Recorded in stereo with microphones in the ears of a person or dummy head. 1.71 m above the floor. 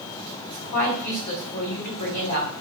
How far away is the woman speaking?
About 1.8 m.